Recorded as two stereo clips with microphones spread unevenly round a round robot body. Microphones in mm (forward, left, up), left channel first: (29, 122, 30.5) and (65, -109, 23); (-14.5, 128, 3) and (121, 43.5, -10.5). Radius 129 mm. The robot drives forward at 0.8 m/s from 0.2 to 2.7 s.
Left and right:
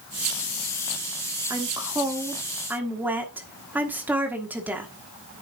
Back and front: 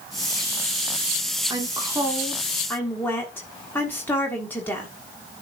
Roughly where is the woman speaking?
Ahead.